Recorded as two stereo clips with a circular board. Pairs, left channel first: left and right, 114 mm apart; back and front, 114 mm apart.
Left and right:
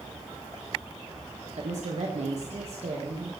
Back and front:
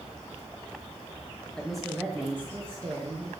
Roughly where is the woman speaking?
Right.